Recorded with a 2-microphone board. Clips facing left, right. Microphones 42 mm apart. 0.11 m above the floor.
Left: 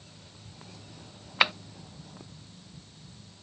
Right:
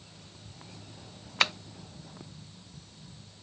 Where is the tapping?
15° left (ahead or behind).